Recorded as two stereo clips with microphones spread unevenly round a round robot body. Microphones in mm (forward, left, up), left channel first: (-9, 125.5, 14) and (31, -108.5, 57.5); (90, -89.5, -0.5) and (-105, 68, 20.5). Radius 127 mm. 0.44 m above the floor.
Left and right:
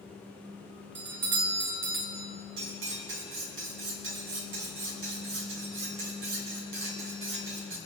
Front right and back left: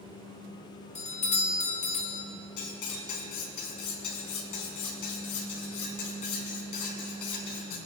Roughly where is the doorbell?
Right.